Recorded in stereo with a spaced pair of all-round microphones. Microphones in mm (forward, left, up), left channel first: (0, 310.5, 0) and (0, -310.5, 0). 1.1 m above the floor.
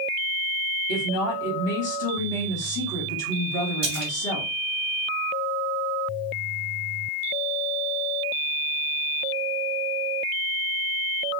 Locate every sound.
0.9 s a woman speaking: 75° left (ahead or behind), 1.3 m
3.8 s a splash: 40° right (ahead or behind), 1.2 m